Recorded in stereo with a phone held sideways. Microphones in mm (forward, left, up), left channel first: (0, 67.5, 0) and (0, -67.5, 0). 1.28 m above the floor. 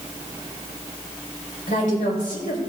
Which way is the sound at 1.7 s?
70° left (ahead or behind).